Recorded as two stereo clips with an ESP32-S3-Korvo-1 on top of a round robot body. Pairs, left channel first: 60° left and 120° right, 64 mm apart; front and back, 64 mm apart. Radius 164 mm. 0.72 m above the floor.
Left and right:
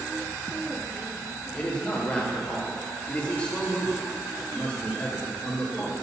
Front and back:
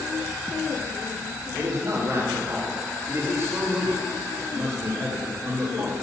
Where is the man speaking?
120° left, 1.9 m.